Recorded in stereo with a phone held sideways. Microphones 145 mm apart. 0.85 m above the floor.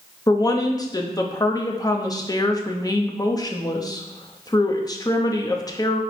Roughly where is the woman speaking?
Left.